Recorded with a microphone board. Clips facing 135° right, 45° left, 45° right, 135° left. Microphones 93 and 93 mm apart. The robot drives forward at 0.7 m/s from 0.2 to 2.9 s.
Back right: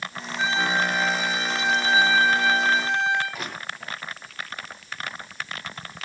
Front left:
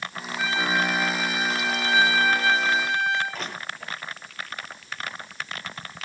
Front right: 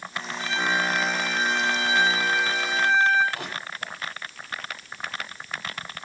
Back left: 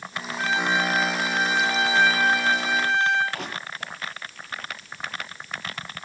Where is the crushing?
140° left, 9.5 m.